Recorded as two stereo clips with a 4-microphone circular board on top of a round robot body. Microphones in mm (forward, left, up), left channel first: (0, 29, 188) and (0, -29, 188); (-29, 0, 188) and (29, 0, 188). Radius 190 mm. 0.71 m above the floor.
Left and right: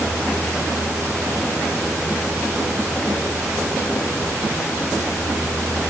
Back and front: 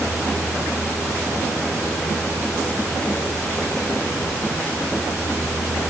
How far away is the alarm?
I don't hear an alarm.